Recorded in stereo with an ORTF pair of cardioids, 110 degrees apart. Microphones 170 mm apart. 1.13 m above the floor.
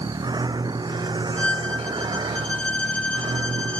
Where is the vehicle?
25° right; by 3.8 s 30° right.